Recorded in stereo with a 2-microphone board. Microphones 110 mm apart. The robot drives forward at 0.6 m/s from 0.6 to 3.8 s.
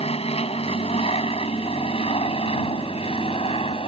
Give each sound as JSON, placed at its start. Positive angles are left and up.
{"t": 0.0, "sound": "an aircraft", "side_deg": 65}